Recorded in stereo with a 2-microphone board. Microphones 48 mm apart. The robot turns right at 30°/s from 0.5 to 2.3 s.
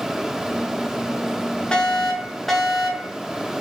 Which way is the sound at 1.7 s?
25° left (ahead or behind).